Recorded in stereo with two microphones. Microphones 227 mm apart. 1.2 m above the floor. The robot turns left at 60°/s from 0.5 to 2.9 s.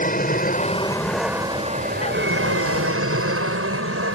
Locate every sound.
0.0 s an aircraft: 40° left (ahead or behind); by 4.2 s 75° right (ahead or behind)